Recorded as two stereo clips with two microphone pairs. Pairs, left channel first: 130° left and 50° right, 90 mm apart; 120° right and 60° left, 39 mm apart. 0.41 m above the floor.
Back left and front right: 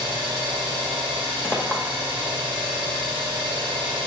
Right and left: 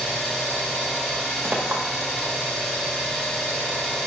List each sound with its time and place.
0.0 s an engine running: 45° right, 1.0 m
1.4 s a clink: 60° left, 1.1 m